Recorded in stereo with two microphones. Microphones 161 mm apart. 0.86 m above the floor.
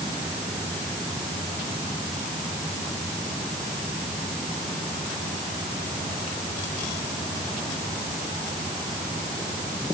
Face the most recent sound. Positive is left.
No sound to turn to.